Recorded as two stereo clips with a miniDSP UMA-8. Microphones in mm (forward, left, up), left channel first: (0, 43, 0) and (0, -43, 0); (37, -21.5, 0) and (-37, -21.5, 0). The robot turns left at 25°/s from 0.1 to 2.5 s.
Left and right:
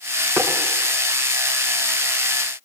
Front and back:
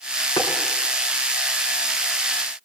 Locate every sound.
0.4 s tapping: 25° right, 3.5 m; by 0.5 s 30° right, 3.5 m